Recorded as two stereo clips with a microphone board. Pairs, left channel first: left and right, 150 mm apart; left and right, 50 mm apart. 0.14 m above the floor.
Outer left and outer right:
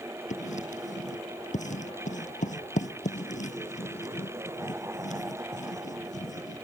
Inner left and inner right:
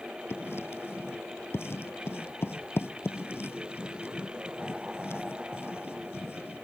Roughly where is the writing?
Left.